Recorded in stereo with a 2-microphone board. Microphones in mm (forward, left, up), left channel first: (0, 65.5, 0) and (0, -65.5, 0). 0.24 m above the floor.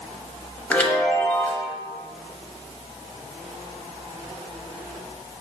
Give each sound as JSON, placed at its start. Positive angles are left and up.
{"t": 0.7, "sound": "a chime", "side_deg": 15, "distance_m": 0.7}